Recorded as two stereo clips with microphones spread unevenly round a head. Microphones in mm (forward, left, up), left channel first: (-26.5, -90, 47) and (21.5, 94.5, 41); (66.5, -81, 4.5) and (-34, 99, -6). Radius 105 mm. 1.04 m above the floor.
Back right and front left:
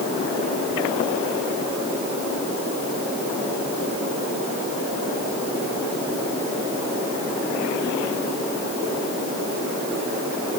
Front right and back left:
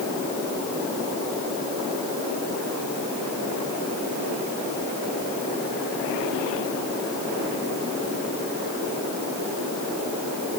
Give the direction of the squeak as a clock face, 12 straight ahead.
I don't hear a squeak.